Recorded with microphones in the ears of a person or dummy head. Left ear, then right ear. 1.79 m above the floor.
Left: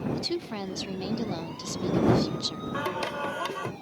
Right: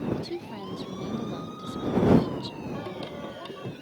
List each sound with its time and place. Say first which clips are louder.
0.1 s a woman speaking: left 4 dB; 50° left (ahead or behind)
2.7 s singing: left 6 dB; 40° left (ahead or behind)